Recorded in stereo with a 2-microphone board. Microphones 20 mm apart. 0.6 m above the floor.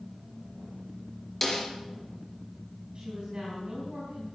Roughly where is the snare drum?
Centre.